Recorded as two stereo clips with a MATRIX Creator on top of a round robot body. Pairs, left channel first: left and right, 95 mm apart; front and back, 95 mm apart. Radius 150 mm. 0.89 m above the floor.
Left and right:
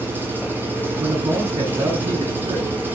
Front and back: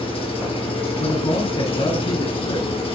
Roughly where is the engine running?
Ahead.